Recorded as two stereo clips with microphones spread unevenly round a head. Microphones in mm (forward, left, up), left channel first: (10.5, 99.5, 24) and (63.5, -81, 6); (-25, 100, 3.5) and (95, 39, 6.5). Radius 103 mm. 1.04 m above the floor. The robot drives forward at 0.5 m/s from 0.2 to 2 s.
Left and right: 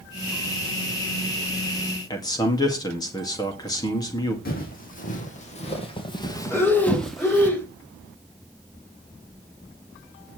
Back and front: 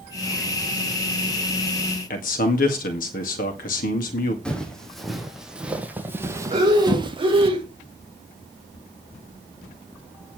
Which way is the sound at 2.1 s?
Straight behind.